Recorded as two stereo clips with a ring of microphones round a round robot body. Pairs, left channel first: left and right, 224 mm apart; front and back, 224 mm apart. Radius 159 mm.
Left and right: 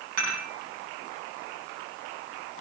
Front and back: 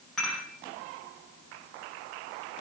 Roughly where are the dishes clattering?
Right.